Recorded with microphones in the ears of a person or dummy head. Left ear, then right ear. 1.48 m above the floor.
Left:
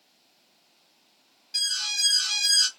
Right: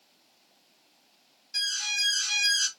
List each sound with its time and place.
1.5 s an alarm: centre (ahead or behind), 1.4 m